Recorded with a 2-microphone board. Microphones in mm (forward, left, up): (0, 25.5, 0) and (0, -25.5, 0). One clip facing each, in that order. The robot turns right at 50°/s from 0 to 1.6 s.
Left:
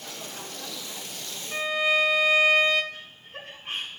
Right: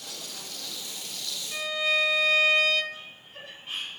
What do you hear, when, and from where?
1.5 s a violin: 25° left (ahead or behind), 0.7 m
2.9 s laughter: 55° left (ahead or behind), 1.9 m